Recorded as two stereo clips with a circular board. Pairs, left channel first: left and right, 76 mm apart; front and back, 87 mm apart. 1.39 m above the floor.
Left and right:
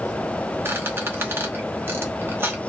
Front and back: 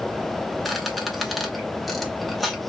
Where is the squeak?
90° right, 0.9 m.